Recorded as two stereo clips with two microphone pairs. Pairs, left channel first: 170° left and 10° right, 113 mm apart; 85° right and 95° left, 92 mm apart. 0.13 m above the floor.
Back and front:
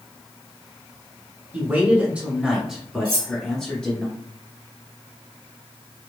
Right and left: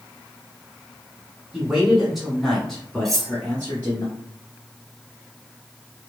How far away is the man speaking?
About 1.6 m.